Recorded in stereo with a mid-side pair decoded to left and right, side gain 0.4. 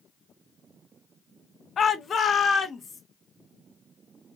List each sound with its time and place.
1.8 s a shout: 50° left, 0.6 m; by 3.0 s 60° left, 1.9 m